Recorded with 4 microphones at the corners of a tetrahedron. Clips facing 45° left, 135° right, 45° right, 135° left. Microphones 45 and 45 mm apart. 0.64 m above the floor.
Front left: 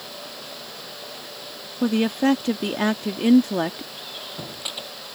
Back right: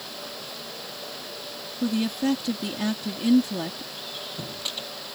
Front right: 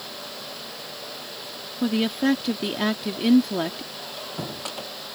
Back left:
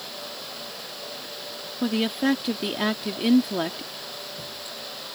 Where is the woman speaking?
45° left.